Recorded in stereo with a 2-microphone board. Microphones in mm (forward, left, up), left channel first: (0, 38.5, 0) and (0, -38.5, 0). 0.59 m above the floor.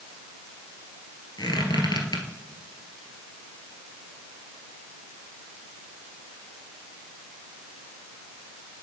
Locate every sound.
1.4 s a squeak: 70° left (ahead or behind), 1.4 m